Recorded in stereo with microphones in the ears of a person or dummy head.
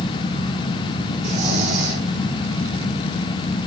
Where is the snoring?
40° right (ahead or behind), 4 m.